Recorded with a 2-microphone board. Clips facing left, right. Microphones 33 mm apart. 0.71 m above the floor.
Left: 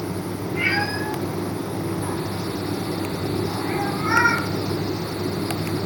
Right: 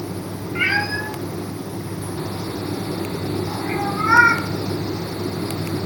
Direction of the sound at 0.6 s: 80° right.